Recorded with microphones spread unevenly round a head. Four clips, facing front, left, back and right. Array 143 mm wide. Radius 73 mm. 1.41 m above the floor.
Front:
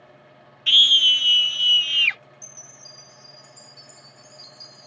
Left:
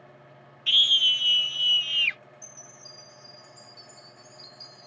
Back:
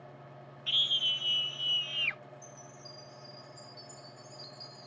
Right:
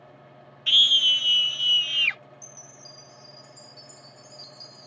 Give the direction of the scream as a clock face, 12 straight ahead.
12 o'clock.